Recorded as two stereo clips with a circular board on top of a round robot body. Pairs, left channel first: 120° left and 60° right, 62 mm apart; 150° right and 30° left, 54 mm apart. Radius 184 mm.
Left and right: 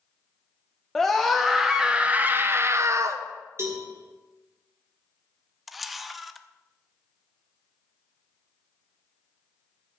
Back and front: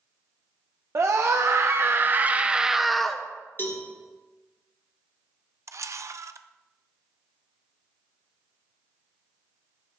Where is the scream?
40° left, 1.4 m; by 3.2 s 75° right, 1.1 m.